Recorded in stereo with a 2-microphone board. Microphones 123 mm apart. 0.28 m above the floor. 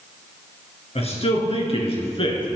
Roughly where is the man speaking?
Left.